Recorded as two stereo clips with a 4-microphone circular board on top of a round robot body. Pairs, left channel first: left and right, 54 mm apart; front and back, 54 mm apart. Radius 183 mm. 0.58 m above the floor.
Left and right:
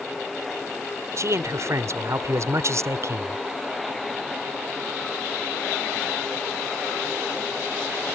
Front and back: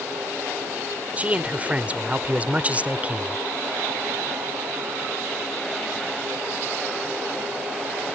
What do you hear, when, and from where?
1.2 s a man speaking: 115° right